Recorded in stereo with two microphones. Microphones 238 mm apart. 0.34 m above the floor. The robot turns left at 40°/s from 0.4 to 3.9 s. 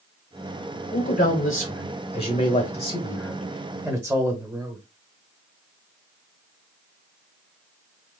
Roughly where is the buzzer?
I don't hear a buzzer.